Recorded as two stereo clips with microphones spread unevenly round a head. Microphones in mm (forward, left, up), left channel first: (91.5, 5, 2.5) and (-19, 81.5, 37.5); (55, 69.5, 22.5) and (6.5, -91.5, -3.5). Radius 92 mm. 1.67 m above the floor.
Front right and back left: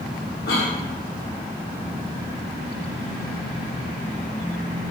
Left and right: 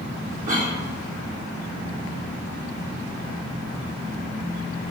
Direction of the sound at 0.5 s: 65° right.